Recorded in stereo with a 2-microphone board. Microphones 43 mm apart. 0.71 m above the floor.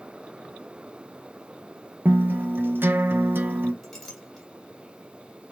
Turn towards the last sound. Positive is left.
turn(degrees=10)  # may be behind; listen again after turning